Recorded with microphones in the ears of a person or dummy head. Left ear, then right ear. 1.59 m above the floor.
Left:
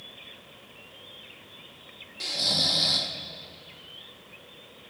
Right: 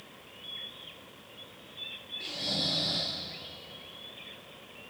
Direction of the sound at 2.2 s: 70° left (ahead or behind).